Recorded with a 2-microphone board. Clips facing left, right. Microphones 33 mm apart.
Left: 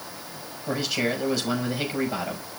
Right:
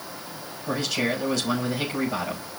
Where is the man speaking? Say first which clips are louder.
Even; 10° left (ahead or behind), 6 m.